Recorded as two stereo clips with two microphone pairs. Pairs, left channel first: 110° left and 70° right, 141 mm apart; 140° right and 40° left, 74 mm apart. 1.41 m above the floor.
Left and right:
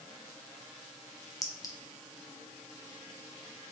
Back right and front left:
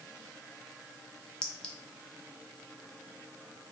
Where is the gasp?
I don't hear a gasp.